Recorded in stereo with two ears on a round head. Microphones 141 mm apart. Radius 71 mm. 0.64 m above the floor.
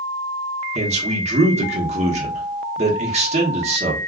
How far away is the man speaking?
About 1.1 m.